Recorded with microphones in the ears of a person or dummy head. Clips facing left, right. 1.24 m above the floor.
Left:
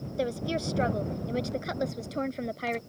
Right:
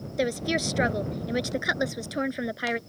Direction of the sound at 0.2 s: 20° right (ahead or behind).